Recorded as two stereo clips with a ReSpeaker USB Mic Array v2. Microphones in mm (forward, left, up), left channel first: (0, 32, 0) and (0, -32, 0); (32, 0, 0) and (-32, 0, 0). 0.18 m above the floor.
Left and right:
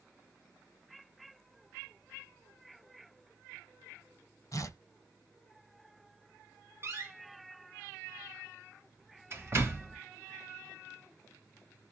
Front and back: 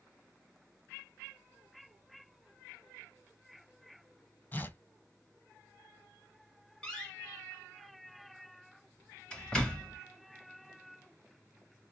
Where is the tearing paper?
60° left, 1.0 m.